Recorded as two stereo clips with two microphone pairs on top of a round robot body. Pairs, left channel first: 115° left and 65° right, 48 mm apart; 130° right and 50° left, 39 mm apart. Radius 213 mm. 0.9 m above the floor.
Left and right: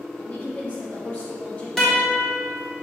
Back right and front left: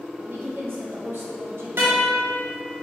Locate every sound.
0.2 s a woman speaking: 55° left, 2 m
1.8 s a guitar: 25° left, 1.1 m